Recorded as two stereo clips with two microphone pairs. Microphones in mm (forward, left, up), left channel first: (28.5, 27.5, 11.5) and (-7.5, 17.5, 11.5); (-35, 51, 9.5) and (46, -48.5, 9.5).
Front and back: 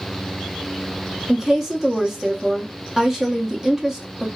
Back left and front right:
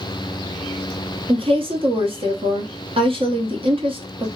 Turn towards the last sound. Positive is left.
turn(degrees=-85)